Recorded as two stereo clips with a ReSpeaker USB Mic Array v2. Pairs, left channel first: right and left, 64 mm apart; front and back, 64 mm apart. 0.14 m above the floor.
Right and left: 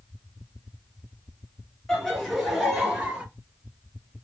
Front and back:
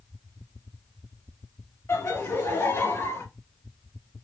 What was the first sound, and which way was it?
Laughter, 10° right.